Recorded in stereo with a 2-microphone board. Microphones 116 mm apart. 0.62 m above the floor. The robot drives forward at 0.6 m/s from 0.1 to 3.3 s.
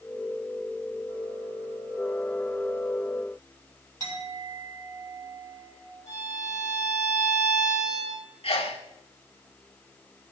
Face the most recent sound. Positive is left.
turn(degrees=55)  # may be behind; listen again after turning